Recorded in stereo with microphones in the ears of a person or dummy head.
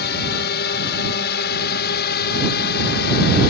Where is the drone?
60° left (ahead or behind); by 3.5 s 55° left (ahead or behind).